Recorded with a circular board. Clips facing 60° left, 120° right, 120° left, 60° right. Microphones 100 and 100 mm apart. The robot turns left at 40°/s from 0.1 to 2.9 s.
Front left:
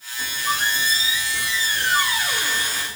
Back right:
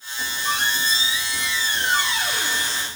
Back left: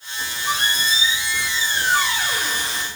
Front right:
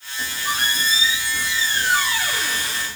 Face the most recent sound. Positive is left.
turn(degrees=165)